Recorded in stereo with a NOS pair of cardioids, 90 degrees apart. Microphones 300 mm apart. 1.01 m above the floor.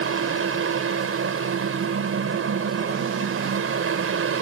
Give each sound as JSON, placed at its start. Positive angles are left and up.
{"t": 0.0, "sound": "a fan", "azimuth_deg": -45}